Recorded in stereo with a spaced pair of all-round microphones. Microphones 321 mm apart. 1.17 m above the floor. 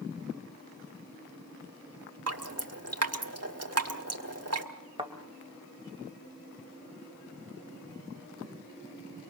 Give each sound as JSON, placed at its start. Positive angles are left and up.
{"t": 2.3, "sound": "dripping", "side_deg": -50, "distance_m": 1.3}
{"t": 5.0, "sound": "a thud", "side_deg": -15, "distance_m": 1.8}